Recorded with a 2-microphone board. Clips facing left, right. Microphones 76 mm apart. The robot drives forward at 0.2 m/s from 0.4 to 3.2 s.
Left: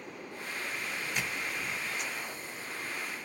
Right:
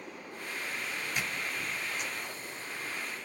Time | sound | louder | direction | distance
1.2 | a squeak | even | centre (ahead or behind) | 1.8 m